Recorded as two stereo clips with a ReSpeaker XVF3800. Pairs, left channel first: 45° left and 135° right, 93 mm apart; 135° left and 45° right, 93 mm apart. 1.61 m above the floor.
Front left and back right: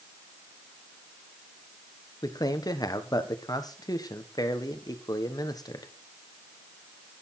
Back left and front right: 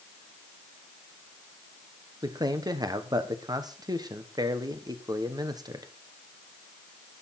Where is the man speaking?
Straight ahead, 1.3 m.